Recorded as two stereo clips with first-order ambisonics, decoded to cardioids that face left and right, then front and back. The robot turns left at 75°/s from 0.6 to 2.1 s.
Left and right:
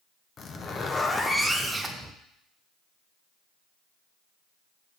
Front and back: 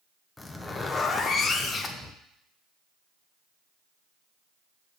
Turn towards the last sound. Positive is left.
turn(degrees=-45)